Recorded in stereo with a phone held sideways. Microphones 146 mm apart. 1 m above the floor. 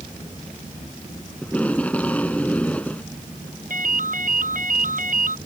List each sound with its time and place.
1.4 s tape being pulled: 10° left (ahead or behind)
3.7 s a ringtone: 70° right (ahead or behind)